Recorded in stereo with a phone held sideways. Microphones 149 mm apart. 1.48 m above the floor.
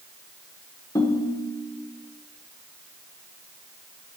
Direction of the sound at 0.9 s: 25° left (ahead or behind).